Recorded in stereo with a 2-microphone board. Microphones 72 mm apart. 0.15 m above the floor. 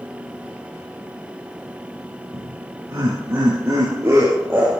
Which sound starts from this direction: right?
Laughter, at 2.3 s.